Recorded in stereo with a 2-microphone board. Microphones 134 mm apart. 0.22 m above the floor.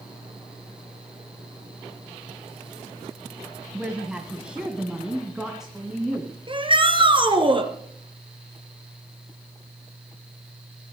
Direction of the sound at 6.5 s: 35° right (ahead or behind).